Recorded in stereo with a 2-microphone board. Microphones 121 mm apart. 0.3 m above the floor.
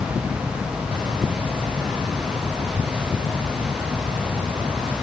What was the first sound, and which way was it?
Only background noise.